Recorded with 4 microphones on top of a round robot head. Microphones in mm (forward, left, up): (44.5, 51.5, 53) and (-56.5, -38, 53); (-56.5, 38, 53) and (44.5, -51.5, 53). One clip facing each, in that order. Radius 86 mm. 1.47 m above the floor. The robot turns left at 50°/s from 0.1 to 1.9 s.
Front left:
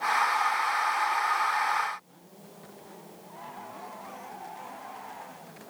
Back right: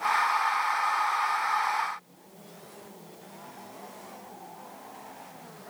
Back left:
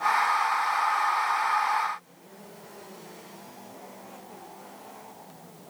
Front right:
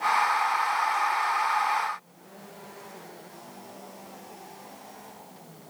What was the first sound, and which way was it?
Only background noise.